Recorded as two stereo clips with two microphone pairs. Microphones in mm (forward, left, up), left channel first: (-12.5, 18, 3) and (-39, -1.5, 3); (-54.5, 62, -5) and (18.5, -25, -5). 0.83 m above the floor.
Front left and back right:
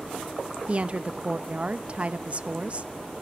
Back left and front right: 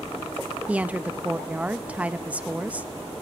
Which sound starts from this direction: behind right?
A woman speaking, at 0.7 s.